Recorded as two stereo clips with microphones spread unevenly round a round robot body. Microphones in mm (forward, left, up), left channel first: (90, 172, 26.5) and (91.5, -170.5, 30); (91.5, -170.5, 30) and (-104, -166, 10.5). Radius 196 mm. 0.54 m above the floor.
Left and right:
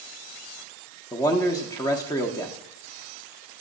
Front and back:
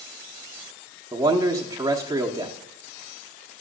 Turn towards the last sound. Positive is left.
turn(degrees=155)